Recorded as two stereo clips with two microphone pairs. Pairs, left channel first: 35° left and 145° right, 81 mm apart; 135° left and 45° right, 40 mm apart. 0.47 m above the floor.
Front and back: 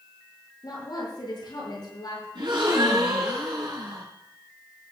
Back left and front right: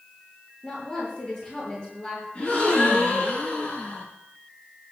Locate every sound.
0.6 s a woman speaking: 65° left, 9 m
2.4 s a gasp: 160° right, 6.5 m